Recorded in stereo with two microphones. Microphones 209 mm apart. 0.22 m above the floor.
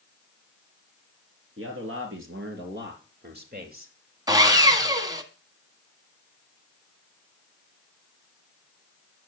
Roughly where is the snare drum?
No snare drum in this recording.